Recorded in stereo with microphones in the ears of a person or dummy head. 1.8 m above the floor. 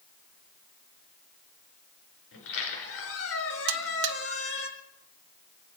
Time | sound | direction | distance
2.3 | a squeak | 80° left | 4.5 m
3.7 | a buzzer | 65° right (ahead or behind) | 0.9 m